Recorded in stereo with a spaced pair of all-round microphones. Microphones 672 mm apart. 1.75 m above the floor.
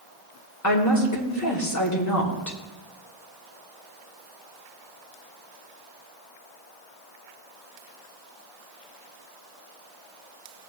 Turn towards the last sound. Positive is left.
turn(degrees=25)  # may be behind; listen again after turning